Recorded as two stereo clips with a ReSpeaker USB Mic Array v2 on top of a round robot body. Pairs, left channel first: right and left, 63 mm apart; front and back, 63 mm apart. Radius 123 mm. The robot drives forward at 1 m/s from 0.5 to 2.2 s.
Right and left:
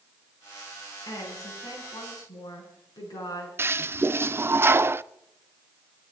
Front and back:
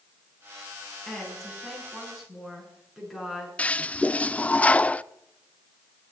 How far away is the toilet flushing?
About 0.6 m.